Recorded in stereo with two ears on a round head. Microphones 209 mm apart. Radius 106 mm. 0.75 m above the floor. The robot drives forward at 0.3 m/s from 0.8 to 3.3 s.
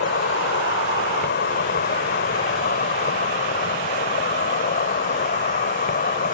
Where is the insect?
50° left (ahead or behind); by 6.3 s 40° left (ahead or behind).